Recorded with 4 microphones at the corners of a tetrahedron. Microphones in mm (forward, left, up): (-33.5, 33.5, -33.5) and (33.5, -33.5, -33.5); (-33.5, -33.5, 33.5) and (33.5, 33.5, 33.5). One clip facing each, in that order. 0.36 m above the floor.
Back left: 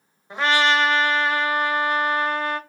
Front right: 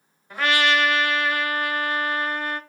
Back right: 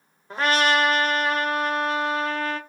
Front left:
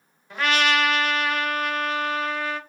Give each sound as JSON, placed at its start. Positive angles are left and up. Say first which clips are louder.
{"t": 0.3, "sound": "a trumpet", "louder": "back left 2 dB, back right 2 dB", "azimuth_deg": -175, "distance_m": 0.8}